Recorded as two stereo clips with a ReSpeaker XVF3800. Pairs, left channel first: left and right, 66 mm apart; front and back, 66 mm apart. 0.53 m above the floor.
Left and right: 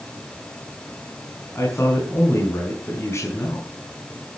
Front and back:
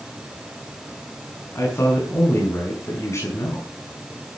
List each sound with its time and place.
1.6 s a man speaking: 45° left, 5.5 m